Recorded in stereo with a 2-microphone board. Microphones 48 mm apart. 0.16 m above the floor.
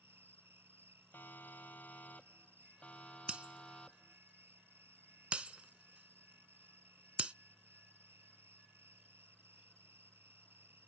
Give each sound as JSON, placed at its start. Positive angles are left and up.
{"t": 0.0, "sound": "an insect", "side_deg": -60}
{"t": 1.1, "sound": "a siren", "side_deg": 45}
{"t": 3.3, "sound": "breaking glass", "side_deg": -25}